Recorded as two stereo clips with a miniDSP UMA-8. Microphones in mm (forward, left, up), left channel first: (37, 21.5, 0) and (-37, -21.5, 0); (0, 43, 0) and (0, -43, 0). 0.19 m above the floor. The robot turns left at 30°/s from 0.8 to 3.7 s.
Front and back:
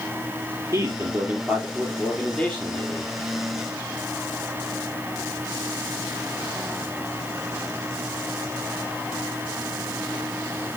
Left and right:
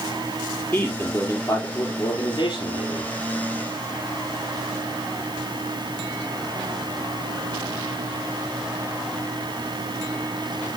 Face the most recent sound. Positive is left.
turn(degrees=85)